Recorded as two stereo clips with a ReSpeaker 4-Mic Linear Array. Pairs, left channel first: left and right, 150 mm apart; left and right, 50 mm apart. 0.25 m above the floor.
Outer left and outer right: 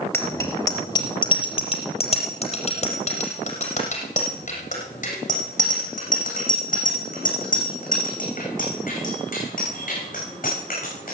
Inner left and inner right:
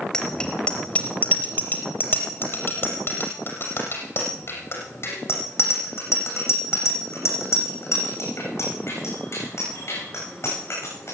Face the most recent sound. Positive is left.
turn(degrees=70)  # may be behind; listen again after turning